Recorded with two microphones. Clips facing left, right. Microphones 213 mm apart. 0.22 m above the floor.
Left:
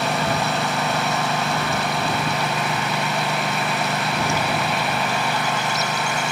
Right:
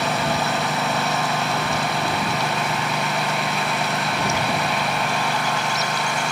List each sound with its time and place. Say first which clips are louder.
0.0 s a lawn mower: even; centre (ahead or behind)